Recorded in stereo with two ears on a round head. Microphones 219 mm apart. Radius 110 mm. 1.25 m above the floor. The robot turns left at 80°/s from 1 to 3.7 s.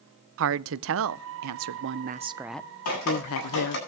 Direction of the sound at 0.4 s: 55° right.